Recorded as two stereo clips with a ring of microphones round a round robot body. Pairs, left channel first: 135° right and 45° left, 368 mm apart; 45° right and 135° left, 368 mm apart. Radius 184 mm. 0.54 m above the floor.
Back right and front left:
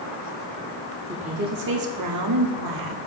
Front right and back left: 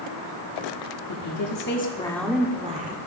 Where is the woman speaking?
30° right, 1.4 m; by 3.0 s 70° left, 1.7 m.